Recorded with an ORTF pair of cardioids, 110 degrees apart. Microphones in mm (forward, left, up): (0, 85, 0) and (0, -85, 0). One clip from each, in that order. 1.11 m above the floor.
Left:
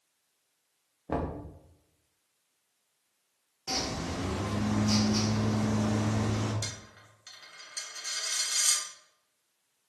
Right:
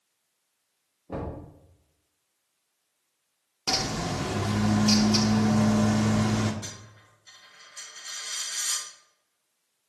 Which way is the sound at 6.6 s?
65° left.